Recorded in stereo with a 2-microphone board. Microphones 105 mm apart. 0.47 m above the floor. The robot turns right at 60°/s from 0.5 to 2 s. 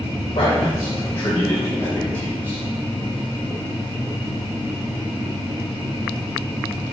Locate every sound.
0.3 s a man speaking: 55° left (ahead or behind), 2.5 m; by 2.6 s 25° right (ahead or behind), 2.5 m